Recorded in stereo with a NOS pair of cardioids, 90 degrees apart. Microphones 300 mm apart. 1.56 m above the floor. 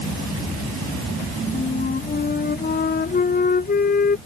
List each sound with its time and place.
1.5 s a flute: 30° left